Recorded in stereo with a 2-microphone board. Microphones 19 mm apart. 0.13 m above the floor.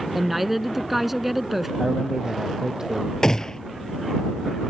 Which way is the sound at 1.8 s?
35° right (ahead or behind).